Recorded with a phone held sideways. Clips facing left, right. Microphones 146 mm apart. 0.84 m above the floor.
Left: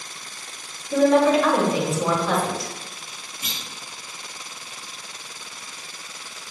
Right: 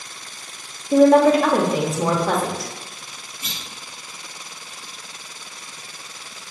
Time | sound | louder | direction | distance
0.9 | a woman speaking | right 4 dB | 50° right (ahead or behind) | 0.8 m
3.4 | a clunk | even | 25° left (ahead or behind) | 1.8 m